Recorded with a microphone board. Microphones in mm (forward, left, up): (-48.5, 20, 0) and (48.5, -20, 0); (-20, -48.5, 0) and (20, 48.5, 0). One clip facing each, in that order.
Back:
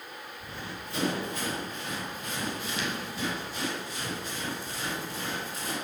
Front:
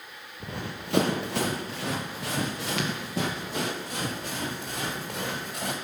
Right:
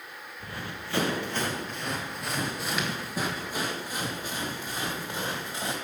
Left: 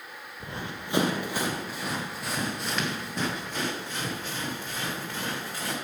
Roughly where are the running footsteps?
Ahead.